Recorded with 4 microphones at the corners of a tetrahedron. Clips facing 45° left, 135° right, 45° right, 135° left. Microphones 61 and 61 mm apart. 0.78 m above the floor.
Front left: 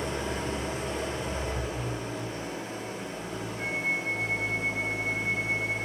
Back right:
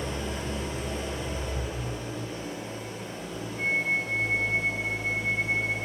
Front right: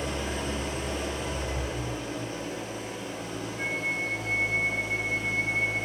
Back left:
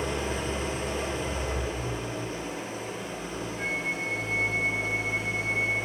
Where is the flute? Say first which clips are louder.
Back right 4 dB, front right 1 dB; 125° right, 2.5 m.